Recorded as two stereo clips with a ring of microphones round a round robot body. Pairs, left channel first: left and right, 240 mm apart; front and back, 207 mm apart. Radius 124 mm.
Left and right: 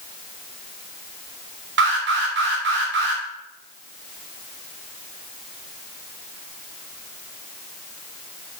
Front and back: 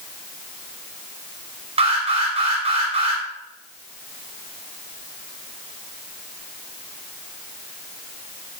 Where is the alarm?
120° right, 2.5 m.